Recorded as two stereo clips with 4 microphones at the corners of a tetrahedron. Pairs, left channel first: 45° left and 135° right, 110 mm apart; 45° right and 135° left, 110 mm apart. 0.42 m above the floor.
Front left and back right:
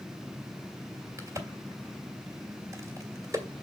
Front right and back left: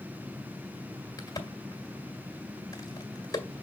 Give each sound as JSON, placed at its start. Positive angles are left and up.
{"t": 1.2, "sound": "a crack", "azimuth_deg": -85, "distance_m": 1.8}